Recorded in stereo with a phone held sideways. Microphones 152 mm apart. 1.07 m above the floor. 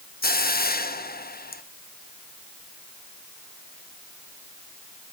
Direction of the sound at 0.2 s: 80° left.